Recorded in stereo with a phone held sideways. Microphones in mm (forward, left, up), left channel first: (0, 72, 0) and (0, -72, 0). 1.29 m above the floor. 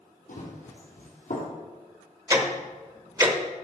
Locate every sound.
0.3 s running footsteps: 65° left (ahead or behind), 3 m; by 1.5 s 60° left (ahead or behind), 2.5 m
2.3 s ticking: 25° right (ahead or behind), 0.9 m